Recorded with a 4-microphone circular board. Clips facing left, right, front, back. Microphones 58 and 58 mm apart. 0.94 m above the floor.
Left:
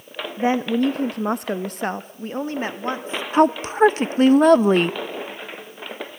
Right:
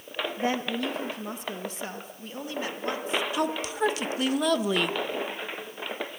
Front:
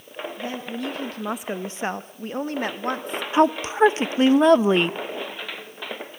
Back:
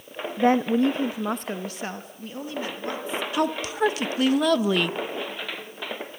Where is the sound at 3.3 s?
55° left, 0.6 m.